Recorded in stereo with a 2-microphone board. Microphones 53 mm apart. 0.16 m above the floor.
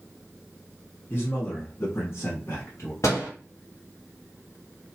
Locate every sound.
1.1 s a man speaking: 40° left (ahead or behind), 1.3 m; by 2.9 s 55° left (ahead or behind), 2 m
3.0 s a door slam: 70° left (ahead or behind), 2 m